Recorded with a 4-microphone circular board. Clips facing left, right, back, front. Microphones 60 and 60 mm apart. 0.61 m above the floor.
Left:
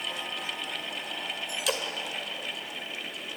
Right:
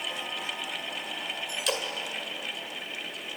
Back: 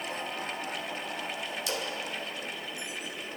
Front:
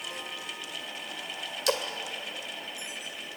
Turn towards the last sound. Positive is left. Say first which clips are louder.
# even, front 8 dB
turn(degrees=5)